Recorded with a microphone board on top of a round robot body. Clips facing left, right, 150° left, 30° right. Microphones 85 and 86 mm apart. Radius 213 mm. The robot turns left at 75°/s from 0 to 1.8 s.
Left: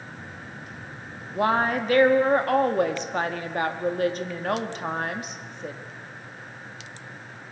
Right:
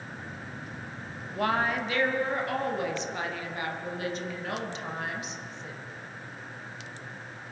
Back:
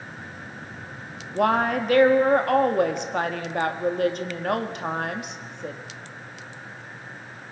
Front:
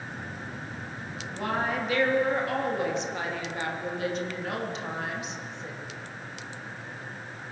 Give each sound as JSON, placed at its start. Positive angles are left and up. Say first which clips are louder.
{"t": 1.4, "sound": "a woman speaking", "louder": "left 5 dB, back 8 dB", "azimuth_deg": 160, "distance_m": 2.0}